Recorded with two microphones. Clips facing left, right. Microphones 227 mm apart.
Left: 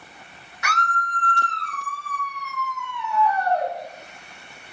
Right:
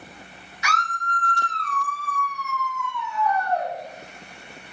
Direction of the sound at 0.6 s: 55° left (ahead or behind).